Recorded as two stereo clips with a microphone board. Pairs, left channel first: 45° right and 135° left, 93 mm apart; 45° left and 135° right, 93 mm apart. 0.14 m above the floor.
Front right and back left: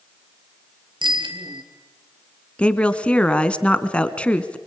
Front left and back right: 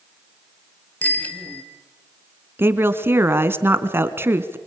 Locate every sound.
1.0 s a bicycle bell: 115° left, 2 m
2.6 s a woman speaking: 110° right, 1.2 m